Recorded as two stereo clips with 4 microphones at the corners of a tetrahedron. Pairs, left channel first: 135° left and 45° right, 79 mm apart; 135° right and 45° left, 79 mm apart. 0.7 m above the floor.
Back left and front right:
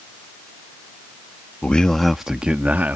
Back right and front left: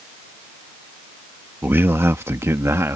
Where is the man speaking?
75° left; by 3.0 s 10° left.